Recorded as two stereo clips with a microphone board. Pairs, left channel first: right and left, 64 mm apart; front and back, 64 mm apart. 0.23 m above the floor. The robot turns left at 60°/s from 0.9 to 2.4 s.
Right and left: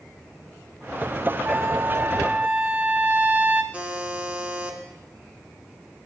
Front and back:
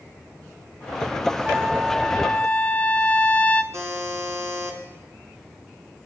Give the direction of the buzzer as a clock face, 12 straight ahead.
7 o'clock.